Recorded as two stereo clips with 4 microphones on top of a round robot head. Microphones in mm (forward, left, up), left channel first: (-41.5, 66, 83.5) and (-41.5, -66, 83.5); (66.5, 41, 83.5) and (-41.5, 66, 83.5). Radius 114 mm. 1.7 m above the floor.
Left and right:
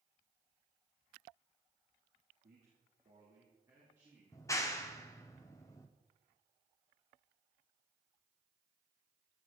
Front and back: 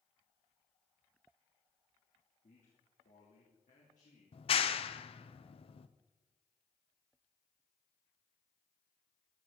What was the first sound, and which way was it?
A man speaking, 55° right.